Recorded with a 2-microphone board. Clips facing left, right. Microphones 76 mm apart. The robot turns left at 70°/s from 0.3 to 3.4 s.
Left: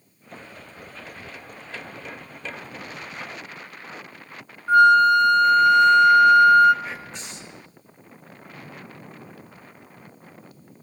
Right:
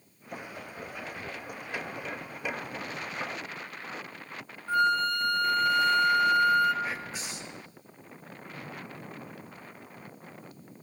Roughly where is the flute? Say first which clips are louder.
Left 12 dB; left.